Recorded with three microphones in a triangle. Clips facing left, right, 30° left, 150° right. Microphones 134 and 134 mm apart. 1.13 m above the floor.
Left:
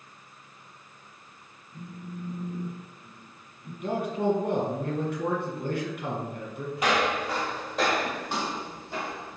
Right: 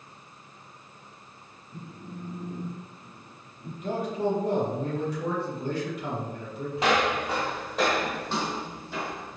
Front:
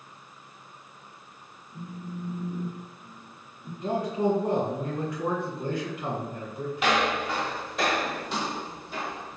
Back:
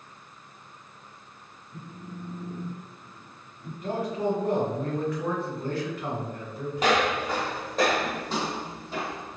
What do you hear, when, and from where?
1.7 s a phone buzzing: 80° right, 0.7 m
3.8 s a man speaking: 95° left, 1.2 m
6.8 s footsteps: 135° right, 1.4 m; by 9.4 s 155° left, 2.5 m